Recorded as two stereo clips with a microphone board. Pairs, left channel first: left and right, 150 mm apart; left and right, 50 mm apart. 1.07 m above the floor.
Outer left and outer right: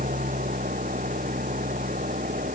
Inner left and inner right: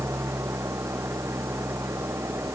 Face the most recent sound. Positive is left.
turn(degrees=-65)  # may be behind; listen again after turning